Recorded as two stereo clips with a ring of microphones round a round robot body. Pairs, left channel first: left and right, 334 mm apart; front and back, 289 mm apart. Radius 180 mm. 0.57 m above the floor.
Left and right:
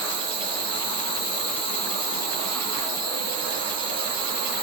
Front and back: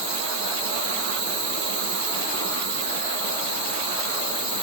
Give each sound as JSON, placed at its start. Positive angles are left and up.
{"t": 0.0, "sound": "an insect", "azimuth_deg": -165, "distance_m": 3.5}